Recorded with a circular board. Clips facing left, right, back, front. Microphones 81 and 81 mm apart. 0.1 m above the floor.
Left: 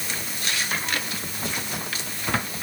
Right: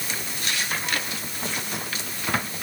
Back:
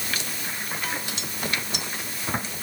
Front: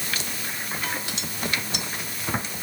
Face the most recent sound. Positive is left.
No sound to turn to.